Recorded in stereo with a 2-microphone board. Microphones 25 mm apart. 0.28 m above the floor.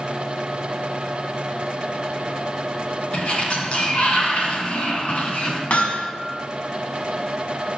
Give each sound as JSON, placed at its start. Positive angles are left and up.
{"t": 3.1, "sound": "a sliding door", "side_deg": 55, "distance_m": 2.5}
{"t": 5.7, "sound": "hammering", "side_deg": 60, "distance_m": 1.6}